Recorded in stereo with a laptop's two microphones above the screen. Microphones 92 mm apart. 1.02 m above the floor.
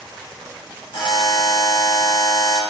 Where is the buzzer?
75° left (ahead or behind), 2.0 m.